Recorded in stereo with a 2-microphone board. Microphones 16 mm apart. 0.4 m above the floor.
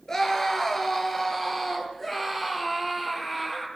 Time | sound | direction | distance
0.1 | a scream | 30° left (ahead or behind) | 5.5 m